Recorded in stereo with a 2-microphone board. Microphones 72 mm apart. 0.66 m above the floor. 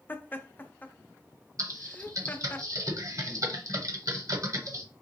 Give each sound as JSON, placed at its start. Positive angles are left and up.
{"t": 0.1, "sound": "laughter", "side_deg": 25, "distance_m": 0.5}
{"t": 1.6, "sound": "typing on a keyboard", "side_deg": -50, "distance_m": 0.9}